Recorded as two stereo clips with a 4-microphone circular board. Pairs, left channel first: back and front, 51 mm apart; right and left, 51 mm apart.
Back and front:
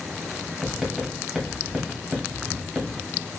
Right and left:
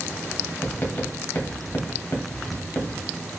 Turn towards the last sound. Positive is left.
turn(degrees=-80)